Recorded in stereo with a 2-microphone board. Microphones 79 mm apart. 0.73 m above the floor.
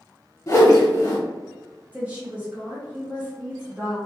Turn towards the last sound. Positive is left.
turn(degrees=-15)  # may be behind; listen again after turning